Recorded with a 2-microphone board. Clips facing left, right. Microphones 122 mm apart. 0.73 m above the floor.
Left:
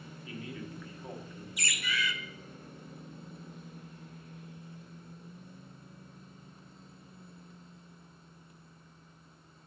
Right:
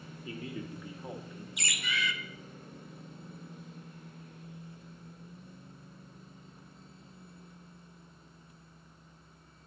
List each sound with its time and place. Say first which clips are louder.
0.2 s a man speaking: right 2 dB; 35° right (ahead or behind), 1.1 m; by 1.5 s centre (ahead or behind), 0.9 m
1.6 s a bird: left 1 dB; 25° right (ahead or behind), 0.6 m